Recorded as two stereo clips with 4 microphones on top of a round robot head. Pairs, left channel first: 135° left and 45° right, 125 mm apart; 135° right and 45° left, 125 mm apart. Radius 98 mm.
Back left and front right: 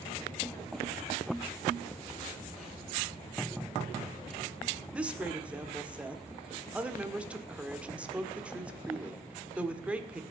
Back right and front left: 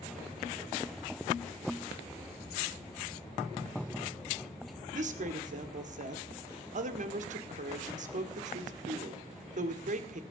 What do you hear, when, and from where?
4.9 s a woman speaking: 40° left, 1.7 m